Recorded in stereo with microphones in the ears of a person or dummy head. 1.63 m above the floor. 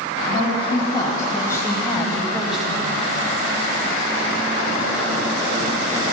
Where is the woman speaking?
30° left (ahead or behind), 2.5 m; by 2.9 s 10° right (ahead or behind), 2 m.